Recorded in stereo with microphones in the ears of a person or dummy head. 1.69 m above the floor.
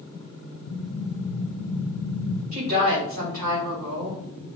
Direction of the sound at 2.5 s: 50° right (ahead or behind).